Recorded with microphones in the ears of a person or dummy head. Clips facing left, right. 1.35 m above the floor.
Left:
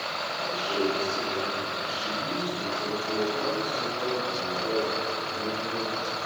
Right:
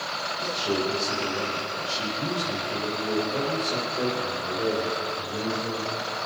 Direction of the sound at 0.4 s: 60° right (ahead or behind).